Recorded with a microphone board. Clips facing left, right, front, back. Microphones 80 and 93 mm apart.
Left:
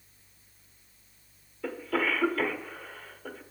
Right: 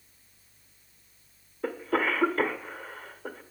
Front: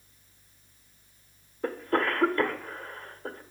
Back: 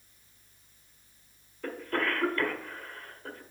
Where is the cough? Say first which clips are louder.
Right 2 dB, front 4 dB; 50° right, 1.1 m.